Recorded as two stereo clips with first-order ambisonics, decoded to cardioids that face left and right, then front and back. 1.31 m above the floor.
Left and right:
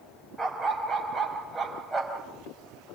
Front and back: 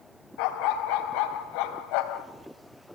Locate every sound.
0.4 s a dog barking: 5° right, 3.5 m